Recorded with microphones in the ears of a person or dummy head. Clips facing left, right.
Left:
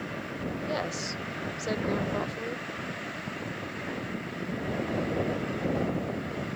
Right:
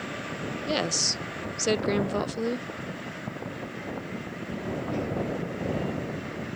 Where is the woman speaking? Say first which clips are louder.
Right 3 dB; 40° right (ahead or behind).